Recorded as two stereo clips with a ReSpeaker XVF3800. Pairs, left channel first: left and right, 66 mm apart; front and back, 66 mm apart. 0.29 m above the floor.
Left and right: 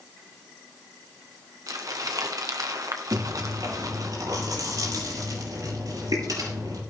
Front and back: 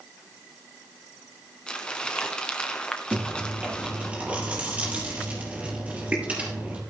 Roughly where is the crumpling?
Right.